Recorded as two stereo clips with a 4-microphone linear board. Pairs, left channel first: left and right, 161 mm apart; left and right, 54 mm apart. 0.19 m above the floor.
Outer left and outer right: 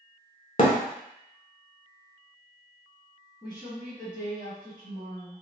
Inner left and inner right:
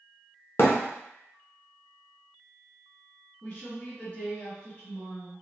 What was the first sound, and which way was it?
A thud, 50° left (ahead or behind).